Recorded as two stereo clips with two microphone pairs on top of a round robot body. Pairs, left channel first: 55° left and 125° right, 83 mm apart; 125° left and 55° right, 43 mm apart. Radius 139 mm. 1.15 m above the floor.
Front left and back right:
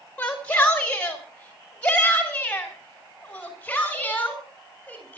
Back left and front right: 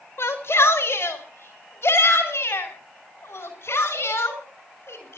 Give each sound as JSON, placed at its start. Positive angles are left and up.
{"t": 0.2, "sound": "a shout", "azimuth_deg": 130, "distance_m": 4.0}